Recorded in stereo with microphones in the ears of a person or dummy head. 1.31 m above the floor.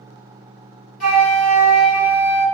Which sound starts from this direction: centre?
A flute, at 1.0 s.